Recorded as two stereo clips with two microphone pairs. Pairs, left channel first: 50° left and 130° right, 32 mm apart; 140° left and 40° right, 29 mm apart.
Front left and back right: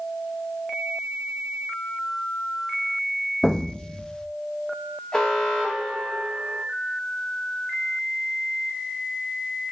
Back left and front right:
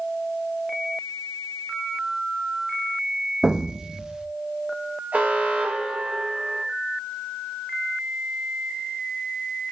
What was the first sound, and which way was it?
An explosion, straight ahead.